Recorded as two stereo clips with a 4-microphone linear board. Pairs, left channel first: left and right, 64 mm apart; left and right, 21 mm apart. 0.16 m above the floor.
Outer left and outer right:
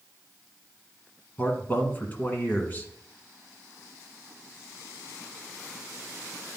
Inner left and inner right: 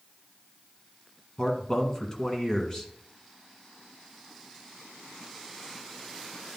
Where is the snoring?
I don't hear snoring.